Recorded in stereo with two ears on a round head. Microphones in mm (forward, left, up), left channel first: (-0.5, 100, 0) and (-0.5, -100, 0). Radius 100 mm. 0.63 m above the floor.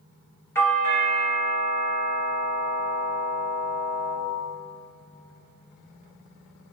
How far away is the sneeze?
No sneeze in this recording.